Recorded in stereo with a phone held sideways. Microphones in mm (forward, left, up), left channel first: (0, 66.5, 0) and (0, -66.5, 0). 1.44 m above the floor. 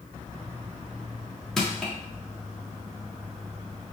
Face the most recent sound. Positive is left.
turn(degrees=5)  # may be behind; listen again after turning